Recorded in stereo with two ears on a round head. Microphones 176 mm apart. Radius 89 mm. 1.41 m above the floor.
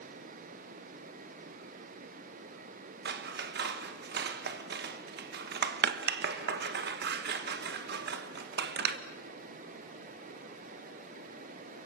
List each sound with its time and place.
3.0 s scissors: 60° right (ahead or behind), 1.4 m